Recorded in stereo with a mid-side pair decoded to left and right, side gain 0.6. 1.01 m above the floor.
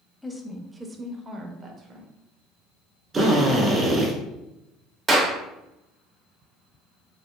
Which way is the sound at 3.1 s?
30° right.